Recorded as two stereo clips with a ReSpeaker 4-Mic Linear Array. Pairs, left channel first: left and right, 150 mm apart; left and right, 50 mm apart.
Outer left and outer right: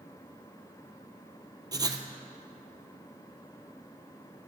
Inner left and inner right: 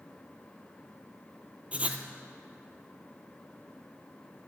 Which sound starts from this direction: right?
Writing, at 1.7 s.